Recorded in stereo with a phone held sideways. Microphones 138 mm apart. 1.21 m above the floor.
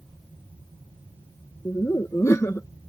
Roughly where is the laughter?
Left.